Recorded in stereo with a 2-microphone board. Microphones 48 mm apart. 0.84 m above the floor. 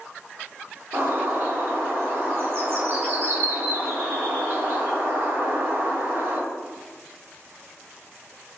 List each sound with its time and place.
0.9 s a bird: 60° right (ahead or behind), 1.4 m